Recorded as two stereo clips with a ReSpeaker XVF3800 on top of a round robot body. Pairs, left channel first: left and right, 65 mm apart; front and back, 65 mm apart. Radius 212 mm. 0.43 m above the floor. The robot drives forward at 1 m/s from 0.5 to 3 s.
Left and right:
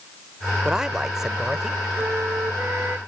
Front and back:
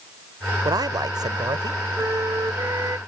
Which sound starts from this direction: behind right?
A flute, at 2.0 s.